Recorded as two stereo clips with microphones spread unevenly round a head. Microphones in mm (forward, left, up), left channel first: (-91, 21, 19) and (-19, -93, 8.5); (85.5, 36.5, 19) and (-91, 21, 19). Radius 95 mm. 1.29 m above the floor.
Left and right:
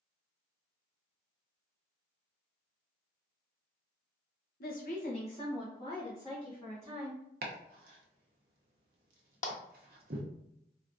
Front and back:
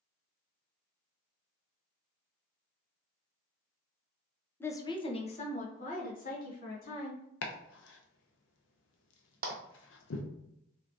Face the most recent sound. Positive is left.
turn(degrees=145)